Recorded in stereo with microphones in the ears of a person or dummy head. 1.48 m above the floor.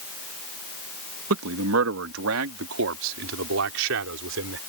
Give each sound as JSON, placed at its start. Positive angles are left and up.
{"t": 1.3, "sound": "a man speaking", "side_deg": -85}